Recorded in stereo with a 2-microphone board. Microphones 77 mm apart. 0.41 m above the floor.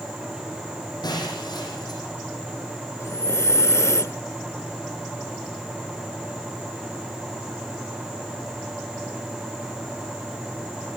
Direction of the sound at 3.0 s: 40° left (ahead or behind).